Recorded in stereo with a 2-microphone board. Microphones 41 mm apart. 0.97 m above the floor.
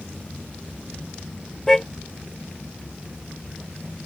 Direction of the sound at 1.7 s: 10° left (ahead or behind).